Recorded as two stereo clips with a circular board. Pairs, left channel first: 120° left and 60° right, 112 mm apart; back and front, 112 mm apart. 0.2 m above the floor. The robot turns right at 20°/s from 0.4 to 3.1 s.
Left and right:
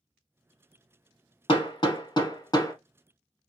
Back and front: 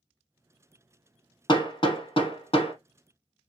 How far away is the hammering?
About 0.9 m.